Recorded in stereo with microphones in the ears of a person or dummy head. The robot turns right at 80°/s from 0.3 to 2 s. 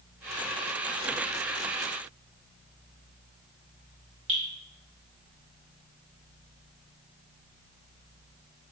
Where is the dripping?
35° right (ahead or behind), 1.9 m.